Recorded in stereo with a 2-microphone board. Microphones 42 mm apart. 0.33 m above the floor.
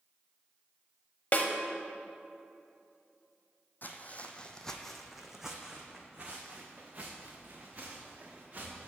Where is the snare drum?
40° left (ahead or behind), 0.7 m.